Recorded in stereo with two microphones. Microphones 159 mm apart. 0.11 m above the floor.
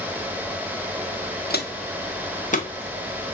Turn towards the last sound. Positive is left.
turn(degrees=30)  # may be behind; listen again after turning